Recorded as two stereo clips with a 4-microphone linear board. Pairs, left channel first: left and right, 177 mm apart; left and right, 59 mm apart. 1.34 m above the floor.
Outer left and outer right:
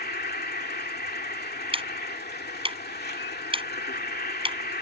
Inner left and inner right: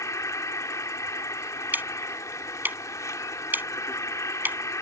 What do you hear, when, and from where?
0.0 s an insect: 75° left (ahead or behind)
1.7 s ticking: 35° right (ahead or behind)